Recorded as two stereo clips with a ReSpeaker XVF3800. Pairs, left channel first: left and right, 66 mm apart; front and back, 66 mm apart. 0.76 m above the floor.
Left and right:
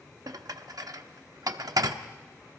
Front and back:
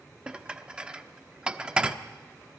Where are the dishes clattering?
105° right, 0.8 m.